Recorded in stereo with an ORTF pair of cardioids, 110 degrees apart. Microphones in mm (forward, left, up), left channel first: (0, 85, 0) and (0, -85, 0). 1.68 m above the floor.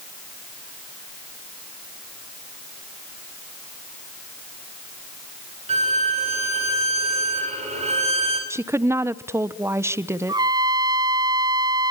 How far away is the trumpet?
About 1.1 m.